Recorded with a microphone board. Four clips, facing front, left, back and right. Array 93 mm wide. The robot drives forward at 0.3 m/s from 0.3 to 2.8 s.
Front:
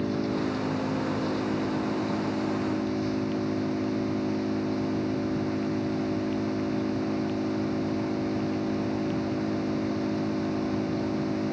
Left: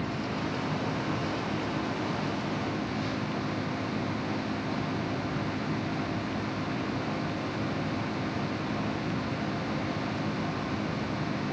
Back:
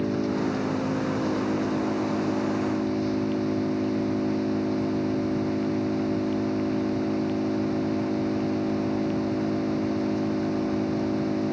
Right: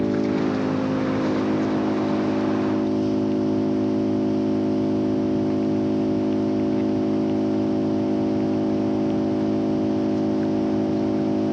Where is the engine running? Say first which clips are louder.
Right 11 dB, back 2 dB; 100° right.